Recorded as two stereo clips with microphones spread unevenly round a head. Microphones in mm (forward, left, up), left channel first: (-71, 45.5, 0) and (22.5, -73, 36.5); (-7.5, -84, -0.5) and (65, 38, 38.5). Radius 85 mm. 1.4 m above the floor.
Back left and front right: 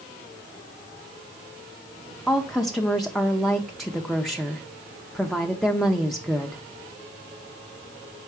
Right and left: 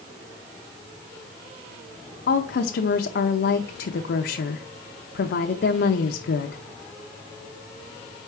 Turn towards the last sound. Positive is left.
turn(degrees=-145)